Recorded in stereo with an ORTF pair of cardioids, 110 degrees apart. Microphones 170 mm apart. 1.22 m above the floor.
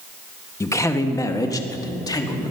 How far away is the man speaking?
About 1.2 m.